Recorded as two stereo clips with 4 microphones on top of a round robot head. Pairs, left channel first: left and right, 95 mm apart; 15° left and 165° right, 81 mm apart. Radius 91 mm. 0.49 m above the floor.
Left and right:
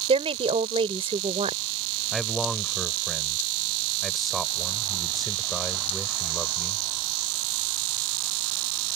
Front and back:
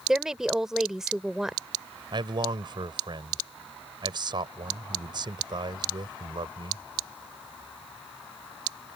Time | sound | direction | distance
0.1 | a woman speaking | 80° right | ?
2.1 | a man speaking | straight behind | ?